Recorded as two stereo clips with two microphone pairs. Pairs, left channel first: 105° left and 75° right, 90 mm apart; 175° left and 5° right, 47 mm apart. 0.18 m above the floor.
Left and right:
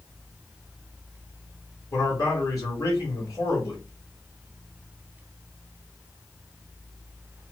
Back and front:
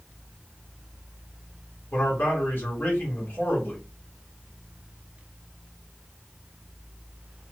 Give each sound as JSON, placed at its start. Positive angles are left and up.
{"t": 1.9, "sound": "a man speaking", "azimuth_deg": 145, "distance_m": 2.5}